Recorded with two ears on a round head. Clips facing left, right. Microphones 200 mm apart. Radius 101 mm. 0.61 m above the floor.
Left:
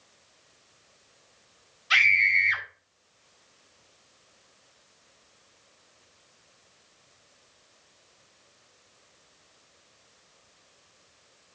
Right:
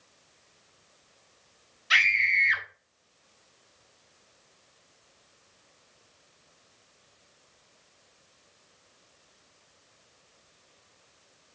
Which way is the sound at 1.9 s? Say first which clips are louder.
Left 1 dB; 25° right (ahead or behind).